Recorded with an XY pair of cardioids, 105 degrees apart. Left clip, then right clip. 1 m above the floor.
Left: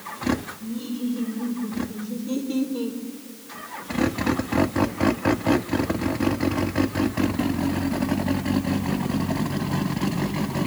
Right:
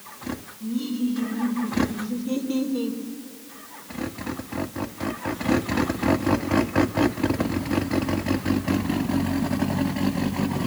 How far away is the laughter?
About 4.5 m.